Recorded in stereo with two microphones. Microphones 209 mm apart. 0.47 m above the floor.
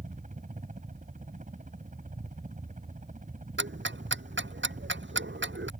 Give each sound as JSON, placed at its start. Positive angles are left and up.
{"t": 0.0, "sound": "a helicopter", "side_deg": -35}
{"t": 3.6, "sound": "ticking", "side_deg": -65}